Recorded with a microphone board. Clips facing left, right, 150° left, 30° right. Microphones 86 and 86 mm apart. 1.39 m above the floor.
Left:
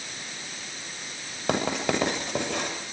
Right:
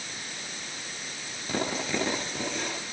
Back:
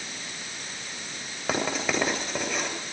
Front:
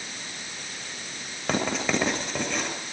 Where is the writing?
60° left, 7.5 m.